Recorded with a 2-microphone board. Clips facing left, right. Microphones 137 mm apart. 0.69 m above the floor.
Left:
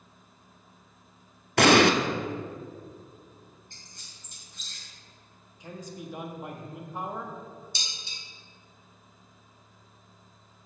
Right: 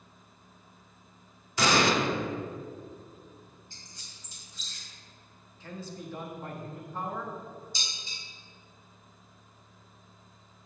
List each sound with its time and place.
1.6 s an explosion: 70° left (ahead or behind), 0.5 m
3.7 s a squeak: 55° left (ahead or behind), 2.5 m
5.6 s a man speaking: 15° left (ahead or behind), 1.0 m
7.8 s dishes clattering: 75° left (ahead or behind), 1.3 m